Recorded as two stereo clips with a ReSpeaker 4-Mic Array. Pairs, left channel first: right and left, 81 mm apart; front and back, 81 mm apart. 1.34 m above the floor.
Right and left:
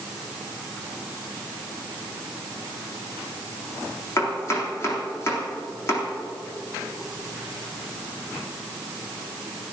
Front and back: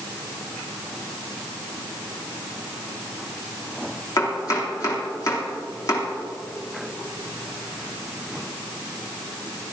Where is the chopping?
40° right, 3.5 m.